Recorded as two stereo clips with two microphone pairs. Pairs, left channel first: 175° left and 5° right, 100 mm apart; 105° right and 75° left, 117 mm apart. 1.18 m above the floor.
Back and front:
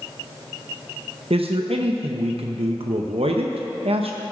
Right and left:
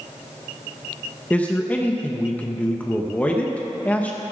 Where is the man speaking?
25° right, 0.7 m.